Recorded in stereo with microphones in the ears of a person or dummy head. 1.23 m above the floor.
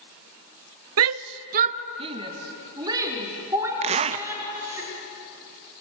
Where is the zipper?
30° right (ahead or behind), 0.6 m.